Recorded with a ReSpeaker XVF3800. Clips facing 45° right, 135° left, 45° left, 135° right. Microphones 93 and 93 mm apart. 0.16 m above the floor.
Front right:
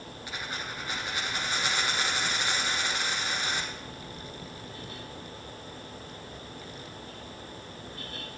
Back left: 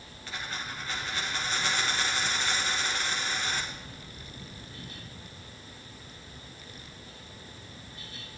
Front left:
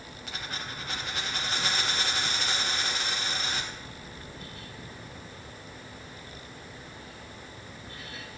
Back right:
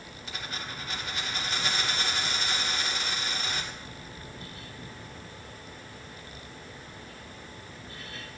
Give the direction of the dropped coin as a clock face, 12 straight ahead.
11 o'clock.